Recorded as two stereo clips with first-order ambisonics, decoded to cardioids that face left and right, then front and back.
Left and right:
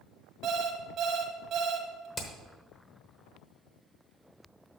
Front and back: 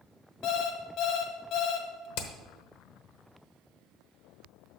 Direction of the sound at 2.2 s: 20° left.